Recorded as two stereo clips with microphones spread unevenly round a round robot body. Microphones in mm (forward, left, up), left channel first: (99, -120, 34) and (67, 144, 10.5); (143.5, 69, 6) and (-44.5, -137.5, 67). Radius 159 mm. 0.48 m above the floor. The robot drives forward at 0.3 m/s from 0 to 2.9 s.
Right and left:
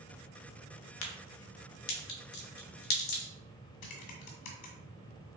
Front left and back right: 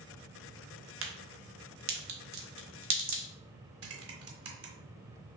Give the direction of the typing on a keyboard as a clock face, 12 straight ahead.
3 o'clock.